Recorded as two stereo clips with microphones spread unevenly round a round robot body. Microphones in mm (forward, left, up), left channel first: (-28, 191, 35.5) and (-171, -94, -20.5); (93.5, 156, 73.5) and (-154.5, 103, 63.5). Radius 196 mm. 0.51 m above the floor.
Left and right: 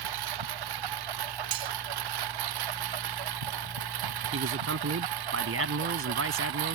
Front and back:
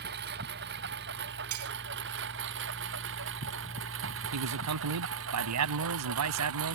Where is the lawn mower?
105° right; by 6.8 s 120° right.